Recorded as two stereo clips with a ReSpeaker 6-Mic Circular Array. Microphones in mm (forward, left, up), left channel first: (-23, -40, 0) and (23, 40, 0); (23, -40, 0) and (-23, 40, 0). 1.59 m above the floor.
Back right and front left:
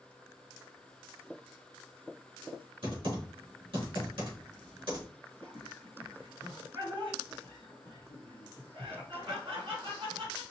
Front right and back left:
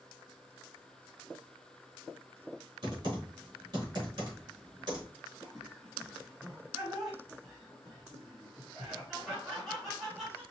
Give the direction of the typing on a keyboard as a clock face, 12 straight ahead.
9 o'clock.